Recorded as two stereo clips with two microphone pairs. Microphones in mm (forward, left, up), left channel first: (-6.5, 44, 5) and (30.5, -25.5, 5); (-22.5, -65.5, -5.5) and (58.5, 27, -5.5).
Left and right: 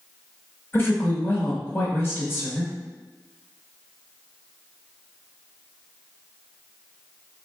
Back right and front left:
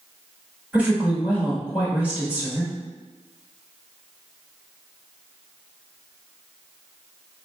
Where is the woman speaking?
115° left, 1.3 m.